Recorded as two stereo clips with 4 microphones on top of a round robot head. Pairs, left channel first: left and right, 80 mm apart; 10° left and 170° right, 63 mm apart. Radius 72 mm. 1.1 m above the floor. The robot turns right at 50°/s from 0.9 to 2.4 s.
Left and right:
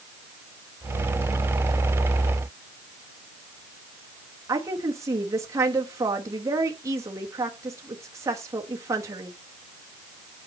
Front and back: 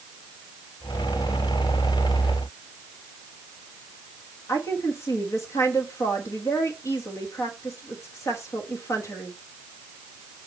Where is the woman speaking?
35° right, 1.4 m.